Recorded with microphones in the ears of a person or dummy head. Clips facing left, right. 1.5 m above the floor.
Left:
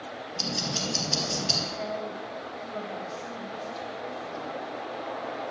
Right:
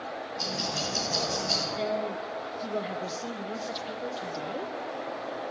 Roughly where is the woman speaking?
Right.